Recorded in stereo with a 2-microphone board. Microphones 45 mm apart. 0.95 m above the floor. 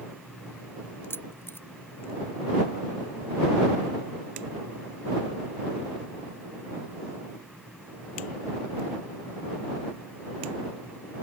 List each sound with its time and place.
1.1 s keys jangling: 60° left (ahead or behind)